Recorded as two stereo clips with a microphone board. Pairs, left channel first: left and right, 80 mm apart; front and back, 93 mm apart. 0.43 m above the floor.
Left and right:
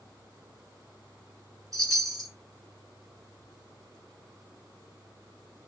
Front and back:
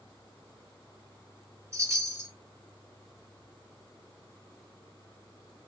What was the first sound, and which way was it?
A chime, 120° right.